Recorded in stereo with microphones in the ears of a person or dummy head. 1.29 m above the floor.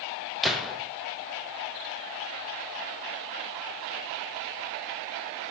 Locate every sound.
0.4 s a gunshot: centre (ahead or behind), 0.7 m